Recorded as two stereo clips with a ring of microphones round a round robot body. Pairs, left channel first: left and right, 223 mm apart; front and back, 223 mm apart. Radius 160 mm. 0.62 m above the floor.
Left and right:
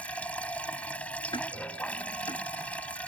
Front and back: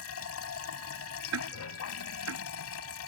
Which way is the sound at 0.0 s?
5° left.